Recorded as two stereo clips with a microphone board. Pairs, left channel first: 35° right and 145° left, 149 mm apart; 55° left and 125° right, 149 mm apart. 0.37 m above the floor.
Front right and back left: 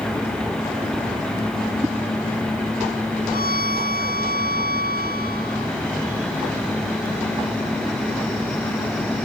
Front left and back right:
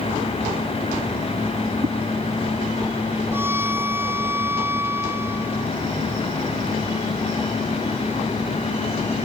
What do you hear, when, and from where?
1.8 s a whoosh: 145° right
3.3 s a violin: 50° right